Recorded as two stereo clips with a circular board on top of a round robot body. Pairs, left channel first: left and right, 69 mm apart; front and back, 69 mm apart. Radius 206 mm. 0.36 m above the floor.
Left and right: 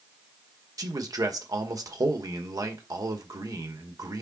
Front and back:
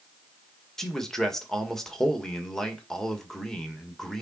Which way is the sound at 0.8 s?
80° right.